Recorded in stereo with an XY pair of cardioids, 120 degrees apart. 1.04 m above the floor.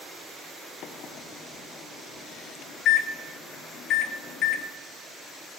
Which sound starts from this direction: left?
A microwave, at 0.8 s.